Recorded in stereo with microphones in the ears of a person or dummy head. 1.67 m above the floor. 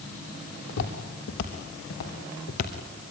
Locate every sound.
0.7 s footsteps: 60° left (ahead or behind), 3 m; by 3.1 s 40° left (ahead or behind), 2.5 m